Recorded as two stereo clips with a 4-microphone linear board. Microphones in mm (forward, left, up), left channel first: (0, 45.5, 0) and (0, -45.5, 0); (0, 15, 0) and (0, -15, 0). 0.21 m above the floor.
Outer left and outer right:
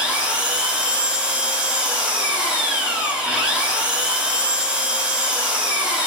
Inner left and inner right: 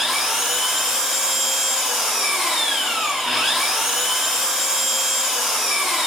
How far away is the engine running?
About 1.0 m.